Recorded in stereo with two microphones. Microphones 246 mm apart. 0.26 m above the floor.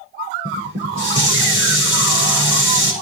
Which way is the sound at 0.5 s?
55° right (ahead or behind).